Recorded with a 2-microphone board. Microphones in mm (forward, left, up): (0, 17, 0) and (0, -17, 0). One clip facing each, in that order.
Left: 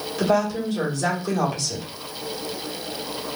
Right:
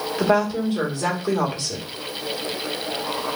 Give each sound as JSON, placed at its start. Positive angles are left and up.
{"t": 0.2, "sound": "a woman speaking", "side_deg": -30, "distance_m": 1.7}